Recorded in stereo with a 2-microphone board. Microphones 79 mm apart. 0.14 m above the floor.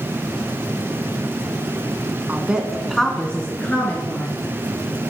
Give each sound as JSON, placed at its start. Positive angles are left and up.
{"t": 2.3, "sound": "a woman speaking", "side_deg": -20, "distance_m": 1.1}